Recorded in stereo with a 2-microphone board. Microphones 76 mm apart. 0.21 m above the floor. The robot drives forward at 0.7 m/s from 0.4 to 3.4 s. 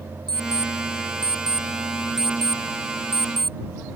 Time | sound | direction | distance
0.3 | an alarm clock | 70° right (ahead or behind) | ?